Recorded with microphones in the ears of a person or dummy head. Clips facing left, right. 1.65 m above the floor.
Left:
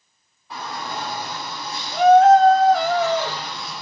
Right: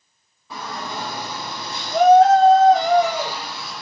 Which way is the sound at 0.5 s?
75° right (ahead or behind).